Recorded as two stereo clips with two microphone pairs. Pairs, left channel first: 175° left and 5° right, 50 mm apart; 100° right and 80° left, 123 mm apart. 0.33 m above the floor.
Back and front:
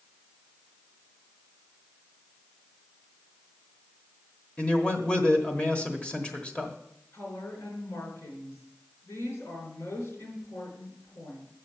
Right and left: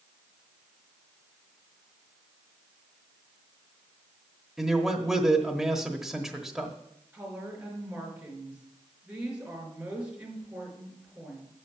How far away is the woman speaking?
About 4 m.